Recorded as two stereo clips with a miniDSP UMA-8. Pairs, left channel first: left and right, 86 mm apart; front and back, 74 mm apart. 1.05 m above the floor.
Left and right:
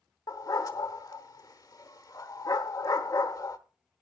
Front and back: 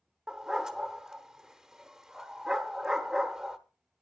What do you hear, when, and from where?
0.3 s a dog barking: 105° left, 0.9 m